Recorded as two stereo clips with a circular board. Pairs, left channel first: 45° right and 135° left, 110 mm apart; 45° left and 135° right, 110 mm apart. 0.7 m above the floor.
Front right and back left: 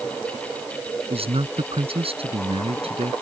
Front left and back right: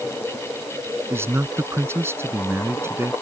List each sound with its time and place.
1.1 s a man speaking: 160° left